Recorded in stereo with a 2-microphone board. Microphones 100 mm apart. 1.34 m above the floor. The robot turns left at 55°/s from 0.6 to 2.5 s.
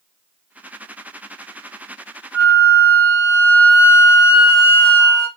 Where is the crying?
No crying in this recording.